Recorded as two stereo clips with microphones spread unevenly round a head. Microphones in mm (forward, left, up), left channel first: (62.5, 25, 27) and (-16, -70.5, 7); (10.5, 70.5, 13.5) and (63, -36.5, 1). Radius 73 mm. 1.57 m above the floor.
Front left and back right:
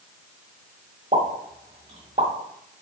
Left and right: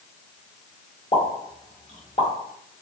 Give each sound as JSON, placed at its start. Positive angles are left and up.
{"t": 1.1, "sound": "a pop", "azimuth_deg": 170, "distance_m": 1.6}